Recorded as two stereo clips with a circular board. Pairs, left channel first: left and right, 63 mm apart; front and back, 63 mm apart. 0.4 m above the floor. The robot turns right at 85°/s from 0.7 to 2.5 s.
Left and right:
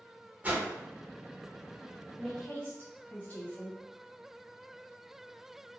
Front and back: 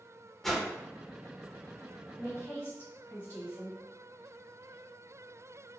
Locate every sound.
0.4 s a whoosh: 85° right, 0.7 m
2.2 s a woman speaking: 5° left, 1.5 m; by 3.8 s 35° left, 1.5 m